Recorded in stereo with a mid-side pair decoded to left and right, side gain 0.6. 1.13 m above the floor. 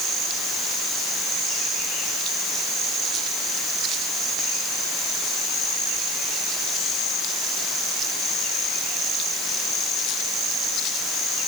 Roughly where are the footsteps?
I don't hear footsteps.